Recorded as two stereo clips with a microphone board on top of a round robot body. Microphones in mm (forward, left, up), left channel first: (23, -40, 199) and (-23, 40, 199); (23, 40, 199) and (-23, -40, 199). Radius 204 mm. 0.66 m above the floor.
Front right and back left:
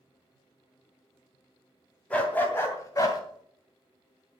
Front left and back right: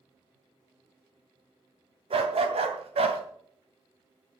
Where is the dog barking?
135° right, 2.5 m; by 3.2 s 110° right, 2.5 m.